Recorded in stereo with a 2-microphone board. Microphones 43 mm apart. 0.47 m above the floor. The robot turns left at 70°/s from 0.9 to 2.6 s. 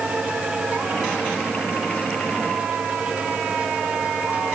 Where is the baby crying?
No baby crying in this recording.